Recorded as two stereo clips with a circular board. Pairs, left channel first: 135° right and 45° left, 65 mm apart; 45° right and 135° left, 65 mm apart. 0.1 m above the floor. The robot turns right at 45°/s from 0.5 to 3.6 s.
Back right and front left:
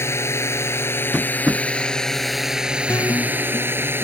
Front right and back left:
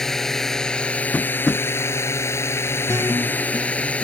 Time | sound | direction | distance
0.0 | a drone | 125° right | ?
1.1 | tapping | 15° right | ?
2.9 | a guitar | 175° left | ?